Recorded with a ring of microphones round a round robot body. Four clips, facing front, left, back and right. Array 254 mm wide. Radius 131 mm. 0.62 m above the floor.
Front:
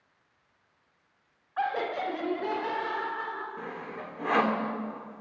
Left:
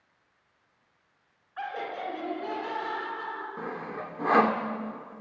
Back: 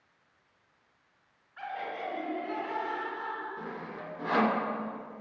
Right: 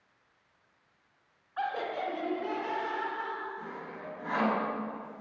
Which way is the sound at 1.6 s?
10° right.